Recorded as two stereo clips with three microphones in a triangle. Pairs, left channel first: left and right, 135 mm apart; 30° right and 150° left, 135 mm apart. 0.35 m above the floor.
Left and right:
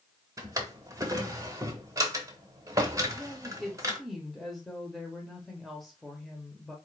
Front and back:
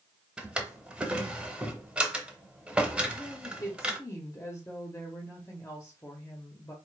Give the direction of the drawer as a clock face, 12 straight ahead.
4 o'clock.